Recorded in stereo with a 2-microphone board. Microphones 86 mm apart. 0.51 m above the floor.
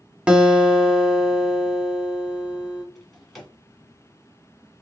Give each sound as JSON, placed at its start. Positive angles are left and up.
{"t": 0.3, "sound": "a guitar", "side_deg": -10, "distance_m": 0.7}
{"t": 3.0, "sound": "a drawer", "side_deg": 0, "distance_m": 1.8}